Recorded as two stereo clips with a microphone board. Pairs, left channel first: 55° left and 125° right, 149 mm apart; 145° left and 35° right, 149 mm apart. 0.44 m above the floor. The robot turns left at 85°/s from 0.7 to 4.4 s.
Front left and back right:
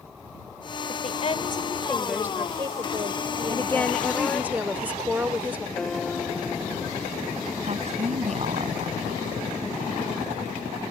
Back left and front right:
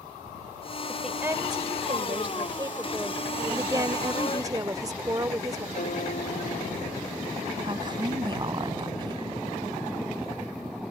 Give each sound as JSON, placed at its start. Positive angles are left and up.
{"t": 0.9, "sound": "a woman speaking", "azimuth_deg": 65}
{"t": 3.5, "sound": "a woman speaking", "azimuth_deg": 15}
{"t": 5.8, "sound": "a piano", "azimuth_deg": 140}
{"t": 7.6, "sound": "a woman speaking", "azimuth_deg": -90}